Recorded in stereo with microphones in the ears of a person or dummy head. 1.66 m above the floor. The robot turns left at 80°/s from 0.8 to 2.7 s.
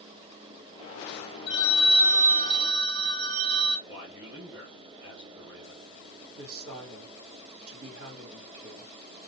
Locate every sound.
1.5 s a phone ringing: 25° left, 1.2 m; by 3.8 s 75° right, 1.2 m
3.9 s a man speaking: 15° right (ahead or behind), 1.9 m
6.3 s a woman speaking: 75° right (ahead or behind), 1.3 m